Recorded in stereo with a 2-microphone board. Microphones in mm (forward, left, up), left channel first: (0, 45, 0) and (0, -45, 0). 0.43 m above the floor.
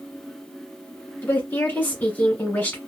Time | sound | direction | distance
1.2 | a woman speaking | 20° left (ahead or behind) | 1.4 m